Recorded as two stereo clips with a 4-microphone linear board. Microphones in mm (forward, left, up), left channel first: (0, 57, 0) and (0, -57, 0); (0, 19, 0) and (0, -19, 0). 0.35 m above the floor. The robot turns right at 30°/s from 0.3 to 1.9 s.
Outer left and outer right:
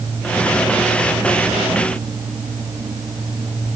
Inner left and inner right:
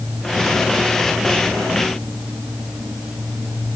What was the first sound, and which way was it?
Only background noise.